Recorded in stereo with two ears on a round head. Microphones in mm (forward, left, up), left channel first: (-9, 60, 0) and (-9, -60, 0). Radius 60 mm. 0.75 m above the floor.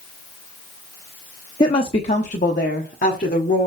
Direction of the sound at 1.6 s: 35° left (ahead or behind).